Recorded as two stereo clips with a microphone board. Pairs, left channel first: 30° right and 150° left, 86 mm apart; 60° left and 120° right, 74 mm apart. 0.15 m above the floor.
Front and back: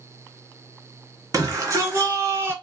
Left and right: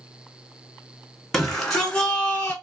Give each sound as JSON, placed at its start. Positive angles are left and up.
{"t": 1.3, "sound": "a shout", "azimuth_deg": 145, "distance_m": 2.0}